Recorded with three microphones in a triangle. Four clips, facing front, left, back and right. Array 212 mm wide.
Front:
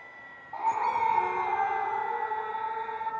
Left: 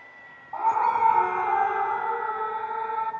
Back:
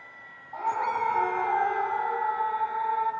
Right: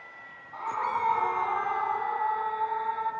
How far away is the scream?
About 3 m.